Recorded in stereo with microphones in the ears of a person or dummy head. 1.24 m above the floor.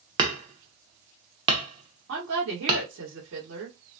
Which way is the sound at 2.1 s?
75° right (ahead or behind).